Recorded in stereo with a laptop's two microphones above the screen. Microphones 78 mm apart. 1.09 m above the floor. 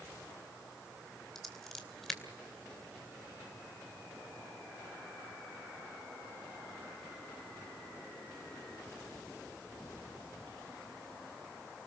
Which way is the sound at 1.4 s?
5° left (ahead or behind).